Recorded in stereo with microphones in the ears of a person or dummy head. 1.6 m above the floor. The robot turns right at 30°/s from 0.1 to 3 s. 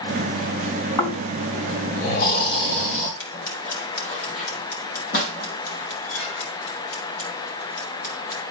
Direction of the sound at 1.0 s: 25° left.